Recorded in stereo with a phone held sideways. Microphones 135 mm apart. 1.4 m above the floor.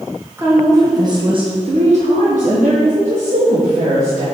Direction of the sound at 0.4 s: 15° right (ahead or behind).